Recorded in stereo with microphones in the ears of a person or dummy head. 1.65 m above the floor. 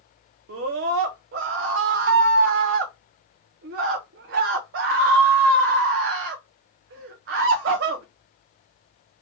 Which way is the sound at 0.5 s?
55° right (ahead or behind).